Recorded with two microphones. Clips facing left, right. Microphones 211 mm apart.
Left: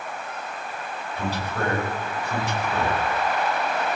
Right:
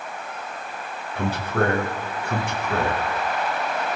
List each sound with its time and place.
1.1 s a man speaking: 55° right (ahead or behind), 7.5 m